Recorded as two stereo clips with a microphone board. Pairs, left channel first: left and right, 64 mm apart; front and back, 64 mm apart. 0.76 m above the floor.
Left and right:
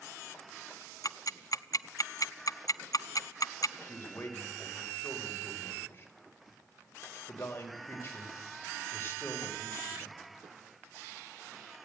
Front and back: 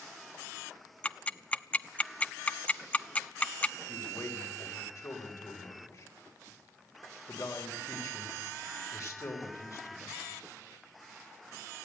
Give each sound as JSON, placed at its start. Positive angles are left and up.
{"t": 1.0, "sound": "ticking", "azimuth_deg": 70, "distance_m": 0.6}
{"t": 3.8, "sound": "a man speaking", "azimuth_deg": 35, "distance_m": 4.0}